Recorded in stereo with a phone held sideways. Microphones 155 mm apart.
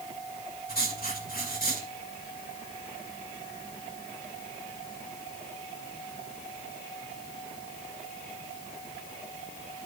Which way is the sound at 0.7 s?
75° left (ahead or behind).